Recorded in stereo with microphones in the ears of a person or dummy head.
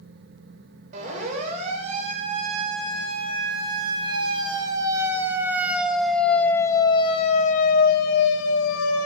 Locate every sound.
0.9 s a siren: 40° right (ahead or behind), 5.5 m; by 9.1 s 85° left, 2 m